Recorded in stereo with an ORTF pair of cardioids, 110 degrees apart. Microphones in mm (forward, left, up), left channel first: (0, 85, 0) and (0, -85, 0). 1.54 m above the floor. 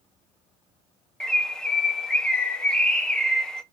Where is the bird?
5° left, 0.7 m.